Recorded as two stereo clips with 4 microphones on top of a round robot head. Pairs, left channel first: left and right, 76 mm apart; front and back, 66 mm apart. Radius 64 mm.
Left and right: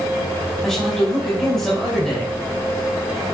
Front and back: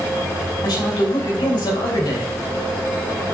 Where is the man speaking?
5° left, 5.5 m.